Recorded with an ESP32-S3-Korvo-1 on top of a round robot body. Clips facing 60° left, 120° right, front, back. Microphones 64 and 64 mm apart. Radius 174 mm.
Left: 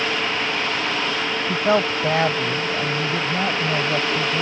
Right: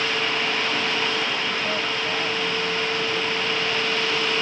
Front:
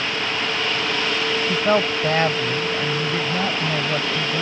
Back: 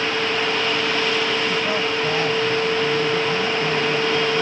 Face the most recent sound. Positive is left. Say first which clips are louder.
# left 6 dB, front 3 dB
turn(degrees=50)